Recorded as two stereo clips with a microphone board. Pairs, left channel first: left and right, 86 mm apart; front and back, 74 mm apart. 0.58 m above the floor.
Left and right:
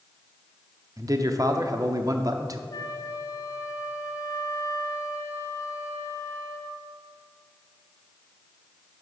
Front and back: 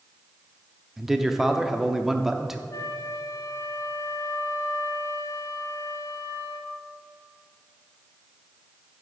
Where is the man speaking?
100° right, 0.7 m.